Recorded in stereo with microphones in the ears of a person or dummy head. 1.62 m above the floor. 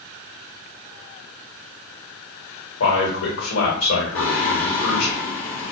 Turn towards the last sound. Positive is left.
turn(degrees=45)  # may be behind; listen again after turning